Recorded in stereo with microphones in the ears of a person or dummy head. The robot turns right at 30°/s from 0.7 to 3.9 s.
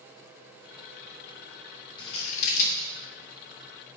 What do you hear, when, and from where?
2.0 s scissors: 30° left (ahead or behind), 3 m; by 2.9 s 55° left (ahead or behind), 3 m